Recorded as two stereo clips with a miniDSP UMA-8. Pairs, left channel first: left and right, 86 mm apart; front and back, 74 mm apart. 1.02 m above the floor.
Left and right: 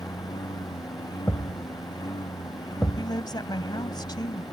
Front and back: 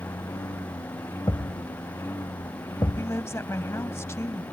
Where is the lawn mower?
50° left; by 4.5 s 55° left.